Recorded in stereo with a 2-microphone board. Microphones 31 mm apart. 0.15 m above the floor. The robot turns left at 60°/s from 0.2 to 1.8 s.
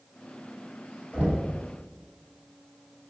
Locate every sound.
1.1 s knocking: 60° left (ahead or behind), 1.6 m; by 1.5 s 65° left (ahead or behind), 1.6 m